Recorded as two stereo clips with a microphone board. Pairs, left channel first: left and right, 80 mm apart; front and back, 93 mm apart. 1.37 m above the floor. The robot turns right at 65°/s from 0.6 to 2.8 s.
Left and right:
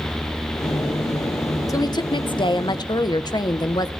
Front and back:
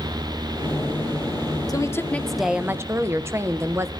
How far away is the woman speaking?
About 0.9 m.